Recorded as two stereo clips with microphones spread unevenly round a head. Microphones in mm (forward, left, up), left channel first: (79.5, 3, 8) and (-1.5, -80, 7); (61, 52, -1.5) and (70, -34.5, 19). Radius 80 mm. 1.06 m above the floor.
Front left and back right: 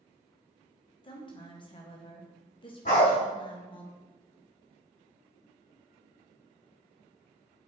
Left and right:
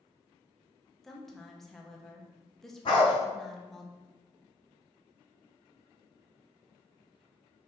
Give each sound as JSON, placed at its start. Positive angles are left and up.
{"t": 1.0, "sound": "a woman speaking", "azimuth_deg": 20, "distance_m": 0.9}
{"t": 2.9, "sound": "a dog barking", "azimuth_deg": 70, "distance_m": 1.9}